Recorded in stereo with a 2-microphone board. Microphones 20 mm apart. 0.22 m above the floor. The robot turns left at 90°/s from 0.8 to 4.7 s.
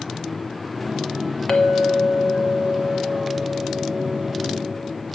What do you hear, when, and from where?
1.5 s a clink: 105° left, 1.0 m; by 5.0 s 175° left, 1.0 m